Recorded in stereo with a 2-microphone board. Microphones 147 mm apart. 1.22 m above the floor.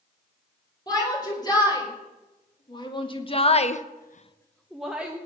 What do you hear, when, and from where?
0.9 s a shout: 25° left (ahead or behind), 5 m; by 5.2 s 10° right (ahead or behind), 1.7 m